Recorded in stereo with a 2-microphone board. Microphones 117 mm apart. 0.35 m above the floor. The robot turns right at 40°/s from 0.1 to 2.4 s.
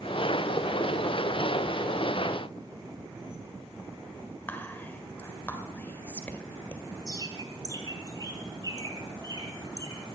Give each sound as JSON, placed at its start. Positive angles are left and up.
{"t": 4.5, "sound": "whispering", "side_deg": 15, "distance_m": 1.6}
{"t": 7.1, "sound": "a bird", "side_deg": -40, "distance_m": 3.0}